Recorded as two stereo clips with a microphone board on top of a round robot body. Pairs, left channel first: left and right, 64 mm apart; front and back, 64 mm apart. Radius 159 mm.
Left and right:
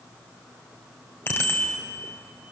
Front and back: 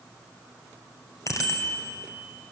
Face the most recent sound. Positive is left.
turn(degrees=35)